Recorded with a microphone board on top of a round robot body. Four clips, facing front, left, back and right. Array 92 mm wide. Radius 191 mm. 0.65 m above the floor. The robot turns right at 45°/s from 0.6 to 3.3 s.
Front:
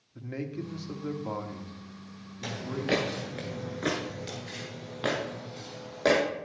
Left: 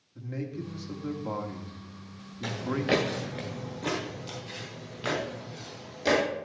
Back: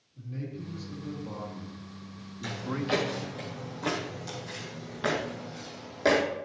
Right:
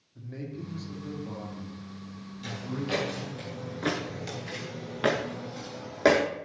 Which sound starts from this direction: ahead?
A man speaking, at 0.1 s.